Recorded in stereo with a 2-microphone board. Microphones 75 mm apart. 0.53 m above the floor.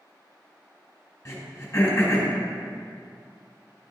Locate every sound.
1.2 s throat clearing: 35° left (ahead or behind), 2 m